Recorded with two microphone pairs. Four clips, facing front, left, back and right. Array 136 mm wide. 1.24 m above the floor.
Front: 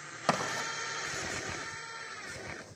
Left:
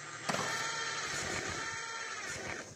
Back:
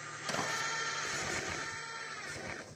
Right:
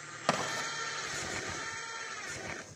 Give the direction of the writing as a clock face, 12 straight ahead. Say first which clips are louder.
Right 4 dB, front 6 dB; 2 o'clock.